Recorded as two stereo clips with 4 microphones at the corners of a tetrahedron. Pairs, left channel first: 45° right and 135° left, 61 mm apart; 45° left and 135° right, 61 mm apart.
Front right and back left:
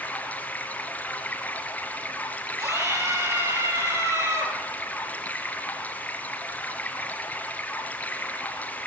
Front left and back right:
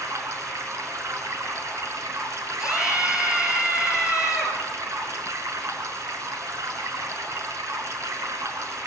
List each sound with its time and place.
0.0 s running water: 105° right, 3 m
2.6 s a scream: 150° left, 6 m